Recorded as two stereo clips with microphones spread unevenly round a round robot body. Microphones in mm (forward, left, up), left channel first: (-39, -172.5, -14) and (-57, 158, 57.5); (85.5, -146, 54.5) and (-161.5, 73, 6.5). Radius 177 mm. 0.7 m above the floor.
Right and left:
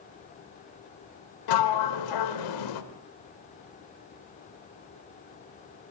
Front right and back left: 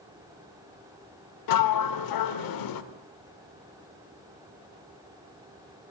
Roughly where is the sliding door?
Ahead right.